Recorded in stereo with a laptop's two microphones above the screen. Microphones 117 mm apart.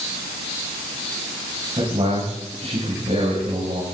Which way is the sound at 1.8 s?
60° right (ahead or behind).